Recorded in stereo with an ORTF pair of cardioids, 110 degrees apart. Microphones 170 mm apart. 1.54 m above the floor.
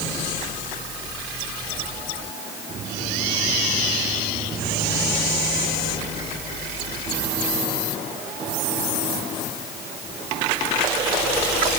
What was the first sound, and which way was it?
Only background noise.